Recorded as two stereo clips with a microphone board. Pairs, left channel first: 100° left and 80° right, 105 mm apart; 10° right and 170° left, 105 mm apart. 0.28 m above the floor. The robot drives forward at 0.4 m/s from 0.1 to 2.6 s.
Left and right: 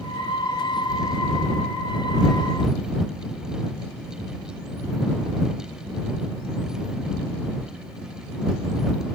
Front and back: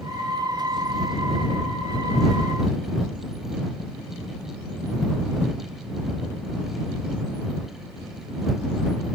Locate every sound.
Only background noise.